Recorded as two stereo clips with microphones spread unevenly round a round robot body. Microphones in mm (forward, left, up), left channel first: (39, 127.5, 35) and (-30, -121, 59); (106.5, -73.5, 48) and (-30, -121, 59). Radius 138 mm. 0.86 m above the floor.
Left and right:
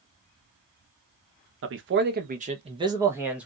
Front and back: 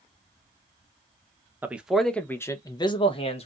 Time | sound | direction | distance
1.6 | a man speaking | 80° right | 0.9 m